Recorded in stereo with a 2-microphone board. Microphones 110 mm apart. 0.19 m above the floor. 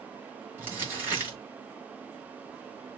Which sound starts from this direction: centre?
Crumpling, at 0.6 s.